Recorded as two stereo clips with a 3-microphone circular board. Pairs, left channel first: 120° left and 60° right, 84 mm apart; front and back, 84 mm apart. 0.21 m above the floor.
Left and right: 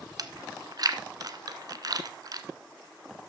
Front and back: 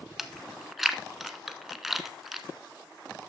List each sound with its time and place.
0.2 s chewing: 95° right, 0.8 m